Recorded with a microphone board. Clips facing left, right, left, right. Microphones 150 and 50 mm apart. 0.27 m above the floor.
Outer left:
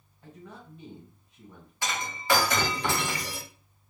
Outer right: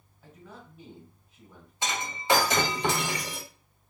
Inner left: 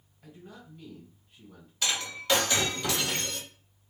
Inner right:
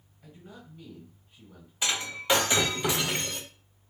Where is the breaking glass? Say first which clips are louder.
Outer right 1 dB, inner right 1 dB; 20° right (ahead or behind), 0.6 m.